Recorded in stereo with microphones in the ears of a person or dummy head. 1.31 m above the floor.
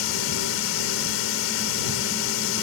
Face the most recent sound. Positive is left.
turn(degrees=75)  # may be behind; listen again after turning